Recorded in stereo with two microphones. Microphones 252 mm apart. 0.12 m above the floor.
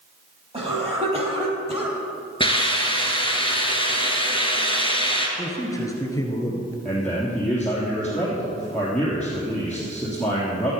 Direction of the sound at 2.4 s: 20° left (ahead or behind).